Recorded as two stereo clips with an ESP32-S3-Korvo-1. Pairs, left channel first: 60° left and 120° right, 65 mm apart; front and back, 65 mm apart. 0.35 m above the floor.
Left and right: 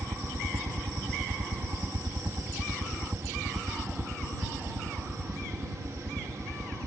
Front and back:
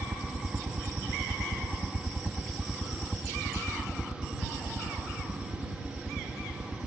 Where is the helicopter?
140° right; by 6.9 s 45° right.